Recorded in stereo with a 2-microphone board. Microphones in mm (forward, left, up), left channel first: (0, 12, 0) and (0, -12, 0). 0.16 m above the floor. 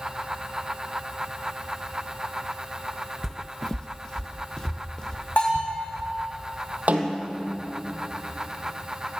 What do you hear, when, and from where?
3.2 s footsteps: 15° left (ahead or behind), 0.5 m; by 6.1 s 25° left (ahead or behind), 3.5 m
5.4 s a bell: 50° left (ahead or behind), 7.5 m
6.9 s a snare drum: 70° right (ahead or behind), 3 m